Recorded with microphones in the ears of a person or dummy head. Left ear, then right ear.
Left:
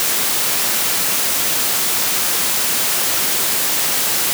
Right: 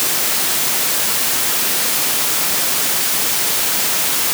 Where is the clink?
No clink in this recording.